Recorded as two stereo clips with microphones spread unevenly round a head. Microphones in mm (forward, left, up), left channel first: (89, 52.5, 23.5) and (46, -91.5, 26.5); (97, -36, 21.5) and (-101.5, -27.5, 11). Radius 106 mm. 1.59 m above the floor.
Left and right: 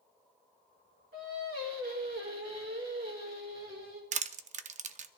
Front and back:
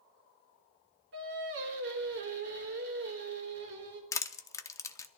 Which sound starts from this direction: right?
Crushing, at 4.1 s.